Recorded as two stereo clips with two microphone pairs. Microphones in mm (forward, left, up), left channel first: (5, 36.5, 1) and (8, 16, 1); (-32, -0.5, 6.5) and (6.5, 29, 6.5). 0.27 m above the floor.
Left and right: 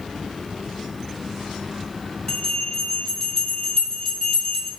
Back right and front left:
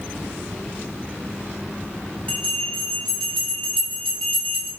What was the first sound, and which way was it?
A bell, 140° left.